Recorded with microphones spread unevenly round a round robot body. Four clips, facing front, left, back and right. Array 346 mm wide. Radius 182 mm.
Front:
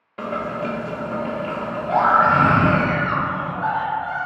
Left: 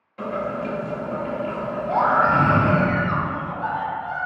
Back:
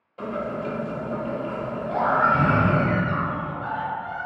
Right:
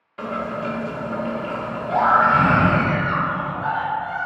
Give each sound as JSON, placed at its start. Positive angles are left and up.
{"t": 0.2, "sound": "boiling", "azimuth_deg": -5, "distance_m": 1.1}
{"t": 1.9, "sound": "a scream", "azimuth_deg": 30, "distance_m": 0.7}